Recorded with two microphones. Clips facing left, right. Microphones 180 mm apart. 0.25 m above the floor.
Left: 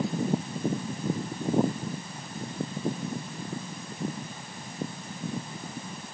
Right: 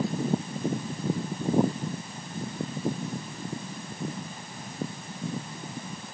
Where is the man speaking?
No man speaking in this recording.